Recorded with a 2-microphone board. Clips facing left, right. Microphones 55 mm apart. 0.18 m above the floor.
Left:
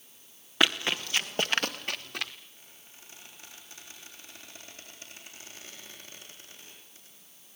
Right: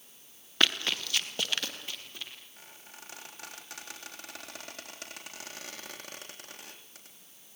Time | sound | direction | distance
0.6 | running footsteps | 10° left (ahead or behind) | 2.5 m
2.6 | a squeak | 70° right (ahead or behind) | 3.5 m